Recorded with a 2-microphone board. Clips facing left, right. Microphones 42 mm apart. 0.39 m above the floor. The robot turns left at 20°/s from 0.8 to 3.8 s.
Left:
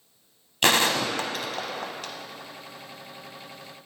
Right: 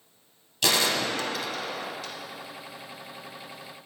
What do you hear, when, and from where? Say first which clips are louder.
0.6 s a gunshot: left 3 dB; 50° left (ahead or behind), 0.6 m; by 2.1 s 75° left (ahead or behind), 0.6 m